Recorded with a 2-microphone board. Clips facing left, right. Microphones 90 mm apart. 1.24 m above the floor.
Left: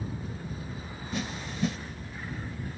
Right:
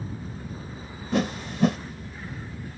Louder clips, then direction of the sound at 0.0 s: Right 1 dB; 35° right (ahead or behind).